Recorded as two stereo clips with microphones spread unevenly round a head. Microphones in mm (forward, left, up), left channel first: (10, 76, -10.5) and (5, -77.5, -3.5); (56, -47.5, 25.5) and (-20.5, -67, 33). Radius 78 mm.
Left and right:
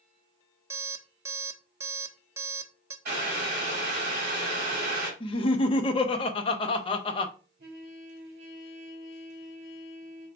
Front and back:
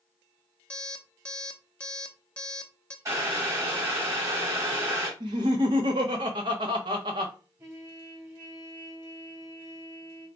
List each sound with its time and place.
0.7 s an alarm clock: 60° right, 0.6 m
3.0 s boiling: 120° right, 2.5 m
5.2 s laughter: 145° left, 0.7 m
7.6 s a trumpet: 120° right, 2.5 m